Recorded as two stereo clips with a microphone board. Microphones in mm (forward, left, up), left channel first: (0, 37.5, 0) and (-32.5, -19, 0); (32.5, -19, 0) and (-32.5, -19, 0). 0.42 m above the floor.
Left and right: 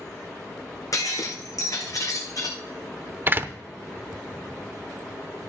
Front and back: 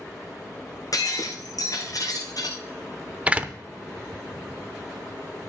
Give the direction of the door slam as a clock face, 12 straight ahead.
4 o'clock.